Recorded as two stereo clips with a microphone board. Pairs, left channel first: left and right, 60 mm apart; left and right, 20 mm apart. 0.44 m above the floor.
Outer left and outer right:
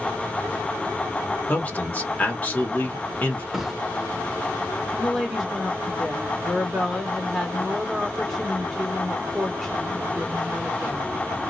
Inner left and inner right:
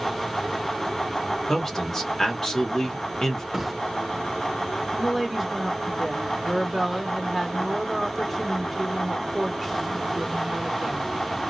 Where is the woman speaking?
Centre (ahead or behind), 0.9 m.